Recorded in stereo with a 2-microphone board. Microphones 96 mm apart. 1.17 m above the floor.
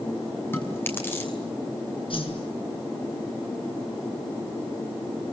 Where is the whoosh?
65° left (ahead or behind), 7 m.